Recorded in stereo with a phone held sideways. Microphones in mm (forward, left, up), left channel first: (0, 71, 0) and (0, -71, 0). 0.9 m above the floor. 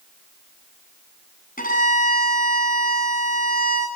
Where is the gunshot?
I don't hear a gunshot.